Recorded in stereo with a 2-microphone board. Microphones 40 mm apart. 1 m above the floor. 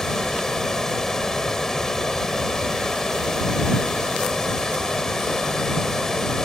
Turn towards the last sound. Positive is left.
turn(degrees=15)  # may be behind; listen again after turning